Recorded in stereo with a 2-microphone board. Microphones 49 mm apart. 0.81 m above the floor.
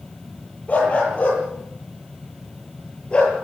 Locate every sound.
0.7 s a dog barking: 30° left (ahead or behind), 10 m; by 3.3 s 20° left (ahead or behind), 8 m